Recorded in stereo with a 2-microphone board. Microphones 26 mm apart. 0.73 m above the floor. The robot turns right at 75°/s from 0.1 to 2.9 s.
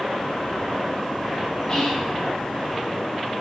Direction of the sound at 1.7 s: 145° left.